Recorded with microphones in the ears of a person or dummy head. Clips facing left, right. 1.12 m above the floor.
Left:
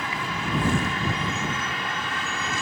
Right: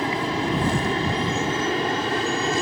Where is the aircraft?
30° right (ahead or behind).